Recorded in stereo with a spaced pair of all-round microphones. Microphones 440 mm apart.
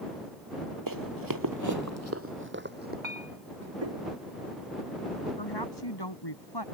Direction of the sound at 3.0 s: 80° right.